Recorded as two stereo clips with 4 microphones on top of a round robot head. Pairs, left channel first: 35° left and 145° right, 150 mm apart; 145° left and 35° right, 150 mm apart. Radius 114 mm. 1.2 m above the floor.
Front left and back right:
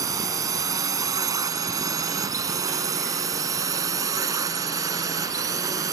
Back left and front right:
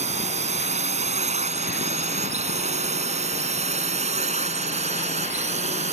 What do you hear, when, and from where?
0.0 s a drone: 80° right